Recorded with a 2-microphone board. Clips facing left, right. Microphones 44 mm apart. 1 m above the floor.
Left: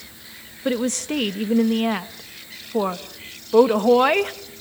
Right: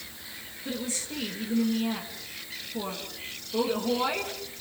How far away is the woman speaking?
About 1.3 m.